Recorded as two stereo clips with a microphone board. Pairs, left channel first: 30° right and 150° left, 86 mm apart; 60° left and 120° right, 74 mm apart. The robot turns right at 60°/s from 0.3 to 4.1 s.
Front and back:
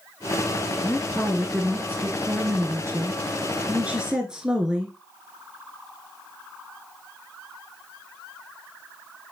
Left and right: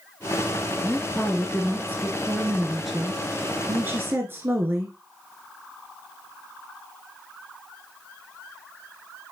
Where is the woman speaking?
25° left, 1.2 m; by 5.0 s 135° right, 1.2 m.